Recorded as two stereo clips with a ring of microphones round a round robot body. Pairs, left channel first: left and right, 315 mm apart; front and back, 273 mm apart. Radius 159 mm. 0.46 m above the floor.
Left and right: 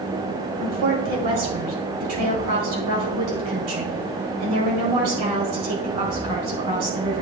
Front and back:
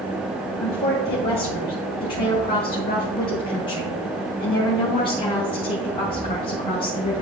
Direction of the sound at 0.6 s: 70° right.